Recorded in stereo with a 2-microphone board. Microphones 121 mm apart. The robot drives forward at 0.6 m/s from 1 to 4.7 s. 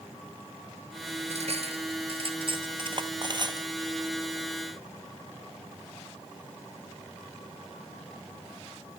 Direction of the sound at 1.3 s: 60° right (ahead or behind).